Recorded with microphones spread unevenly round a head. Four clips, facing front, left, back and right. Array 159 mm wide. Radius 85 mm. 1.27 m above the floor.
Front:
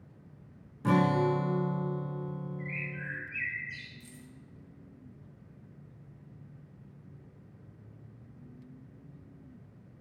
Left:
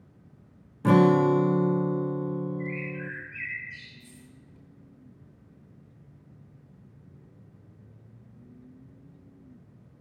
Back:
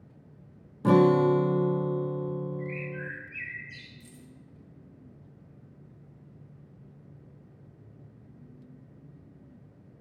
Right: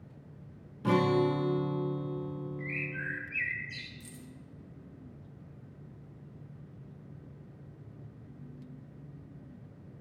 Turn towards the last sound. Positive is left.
turn(degrees=-80)